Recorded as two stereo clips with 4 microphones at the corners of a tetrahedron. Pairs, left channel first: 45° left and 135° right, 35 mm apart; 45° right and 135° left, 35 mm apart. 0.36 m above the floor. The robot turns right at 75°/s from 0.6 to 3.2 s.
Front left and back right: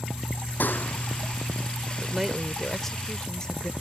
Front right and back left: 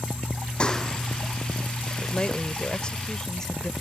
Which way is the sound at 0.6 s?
15° left.